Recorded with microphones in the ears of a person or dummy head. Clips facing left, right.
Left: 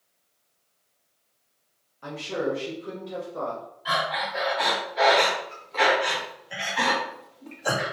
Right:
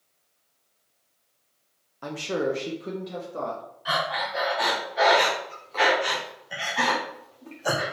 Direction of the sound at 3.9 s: Centre (ahead or behind).